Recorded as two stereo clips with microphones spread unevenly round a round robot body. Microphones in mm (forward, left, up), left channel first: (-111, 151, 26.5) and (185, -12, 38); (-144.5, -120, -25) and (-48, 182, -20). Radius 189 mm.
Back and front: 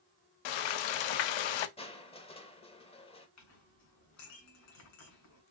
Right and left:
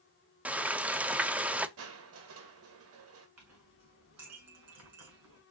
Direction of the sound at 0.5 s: 160° left.